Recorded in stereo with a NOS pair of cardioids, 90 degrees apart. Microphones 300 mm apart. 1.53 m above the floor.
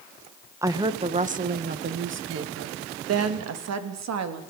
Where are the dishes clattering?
No dishes clattering in this recording.